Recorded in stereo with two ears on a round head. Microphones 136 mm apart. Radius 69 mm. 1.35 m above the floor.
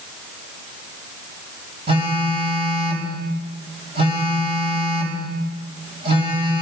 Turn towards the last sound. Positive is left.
turn(degrees=-35)  # may be behind; listen again after turning